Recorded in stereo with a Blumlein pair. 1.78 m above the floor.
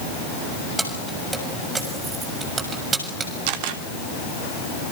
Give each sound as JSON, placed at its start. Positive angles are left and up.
{"t": 0.8, "sound": "keys jangling", "azimuth_deg": -5, "distance_m": 7.0}
{"t": 3.5, "sound": "a camera shutter", "azimuth_deg": -50, "distance_m": 3.0}